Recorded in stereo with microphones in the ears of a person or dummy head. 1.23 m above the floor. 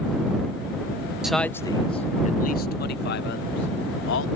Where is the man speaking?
Centre (ahead or behind); by 4.3 s 65° left (ahead or behind).